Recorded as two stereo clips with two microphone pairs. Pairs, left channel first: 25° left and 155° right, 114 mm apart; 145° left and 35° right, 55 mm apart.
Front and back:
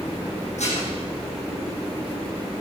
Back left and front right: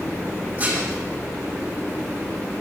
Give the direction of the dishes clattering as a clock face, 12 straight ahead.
11 o'clock.